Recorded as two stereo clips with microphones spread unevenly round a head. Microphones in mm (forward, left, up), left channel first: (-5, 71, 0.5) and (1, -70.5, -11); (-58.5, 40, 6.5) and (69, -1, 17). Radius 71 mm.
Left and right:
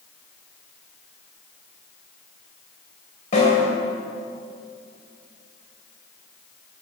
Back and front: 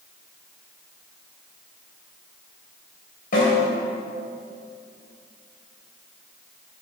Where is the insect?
I don't hear an insect.